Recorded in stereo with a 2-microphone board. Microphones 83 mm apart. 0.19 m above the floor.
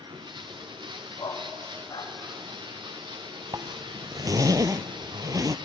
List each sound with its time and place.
0.0 s running water: 65° right (ahead or behind), 2.5 m
1.2 s a dog barking: 60° left (ahead or behind), 6 m
3.5 s a zipper: 45° right (ahead or behind), 0.8 m